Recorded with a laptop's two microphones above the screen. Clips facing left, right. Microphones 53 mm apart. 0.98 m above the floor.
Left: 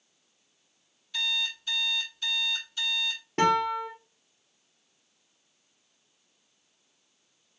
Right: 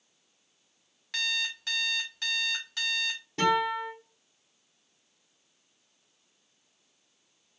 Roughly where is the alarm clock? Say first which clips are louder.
Even; right.